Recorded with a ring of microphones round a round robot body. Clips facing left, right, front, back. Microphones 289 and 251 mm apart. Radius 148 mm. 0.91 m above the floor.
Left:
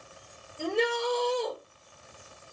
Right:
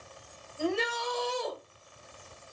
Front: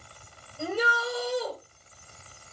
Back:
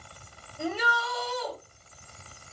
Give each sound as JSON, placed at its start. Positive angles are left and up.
{"t": 0.6, "sound": "a shout", "azimuth_deg": -10, "distance_m": 3.5}